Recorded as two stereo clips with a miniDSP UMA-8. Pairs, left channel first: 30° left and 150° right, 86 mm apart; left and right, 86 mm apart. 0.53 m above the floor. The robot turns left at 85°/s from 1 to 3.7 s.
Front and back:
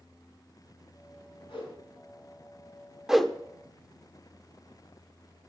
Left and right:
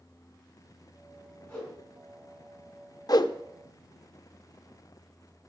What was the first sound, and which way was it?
A whoosh, 15° left.